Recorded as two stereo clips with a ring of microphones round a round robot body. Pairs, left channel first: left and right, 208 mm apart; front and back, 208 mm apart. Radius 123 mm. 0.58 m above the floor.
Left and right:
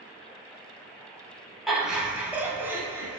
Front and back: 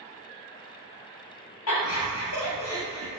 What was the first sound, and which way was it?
Laughter, straight ahead.